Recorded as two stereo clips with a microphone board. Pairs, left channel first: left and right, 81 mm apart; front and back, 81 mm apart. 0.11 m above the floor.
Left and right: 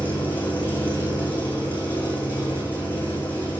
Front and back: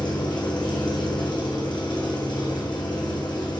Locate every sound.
0.0 s an engine running: 20° left, 5 m